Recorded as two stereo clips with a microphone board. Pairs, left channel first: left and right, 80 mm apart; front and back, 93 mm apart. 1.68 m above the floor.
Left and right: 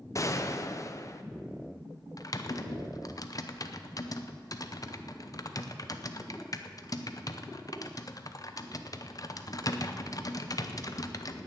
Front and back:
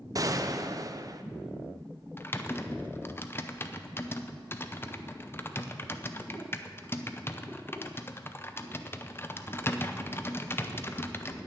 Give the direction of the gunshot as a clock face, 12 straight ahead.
8 o'clock.